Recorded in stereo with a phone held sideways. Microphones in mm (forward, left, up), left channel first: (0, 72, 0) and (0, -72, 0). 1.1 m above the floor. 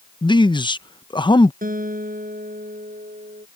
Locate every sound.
0.2 s a man speaking: 35° left (ahead or behind)
1.6 s a guitar: 80° right